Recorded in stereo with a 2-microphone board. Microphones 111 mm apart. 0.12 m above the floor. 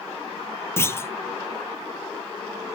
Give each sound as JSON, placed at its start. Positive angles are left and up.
{"t": 0.8, "sound": "a clunk", "side_deg": 25, "distance_m": 0.6}